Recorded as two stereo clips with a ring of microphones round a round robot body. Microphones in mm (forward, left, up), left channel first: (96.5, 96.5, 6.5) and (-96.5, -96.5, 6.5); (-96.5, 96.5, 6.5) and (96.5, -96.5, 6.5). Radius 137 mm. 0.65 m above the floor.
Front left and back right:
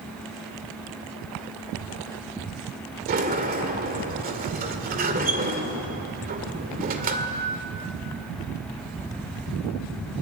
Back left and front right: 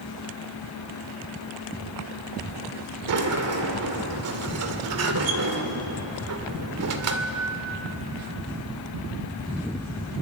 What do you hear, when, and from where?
3.1 s a sliding door: 75° right, 2 m